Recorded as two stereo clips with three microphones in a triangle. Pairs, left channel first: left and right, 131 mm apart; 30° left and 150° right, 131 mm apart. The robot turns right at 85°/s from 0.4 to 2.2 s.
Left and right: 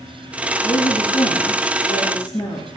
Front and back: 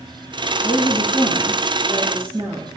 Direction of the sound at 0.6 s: 5° left.